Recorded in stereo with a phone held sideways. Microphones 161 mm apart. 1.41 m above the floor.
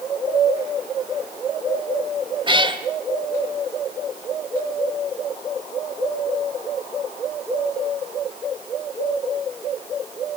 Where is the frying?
I don't hear frying.